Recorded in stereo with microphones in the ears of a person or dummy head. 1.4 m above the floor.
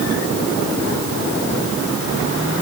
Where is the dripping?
No dripping in this recording.